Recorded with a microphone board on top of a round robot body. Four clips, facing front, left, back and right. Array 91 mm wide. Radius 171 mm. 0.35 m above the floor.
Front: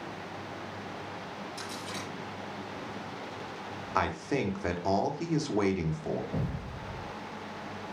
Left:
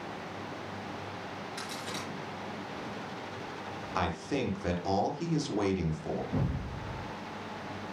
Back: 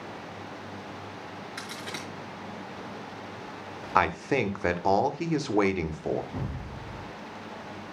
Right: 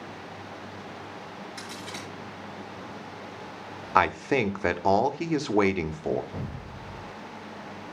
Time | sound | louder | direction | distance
1.6 | a crack | even, back 1 dB | straight behind | 5 m
4.0 | a man speaking | right 9 dB, back 5 dB | 120° right | 1.3 m
6.3 | an explosion | left 3 dB, front 1 dB | 75° left | 5.5 m